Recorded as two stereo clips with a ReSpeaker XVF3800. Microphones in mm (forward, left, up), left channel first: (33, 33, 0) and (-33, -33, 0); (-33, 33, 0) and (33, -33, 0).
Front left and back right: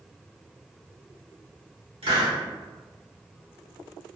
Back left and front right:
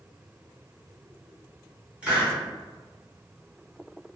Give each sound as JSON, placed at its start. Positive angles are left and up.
{"t": 2.0, "sound": "a hiss", "azimuth_deg": -120, "distance_m": 1.2}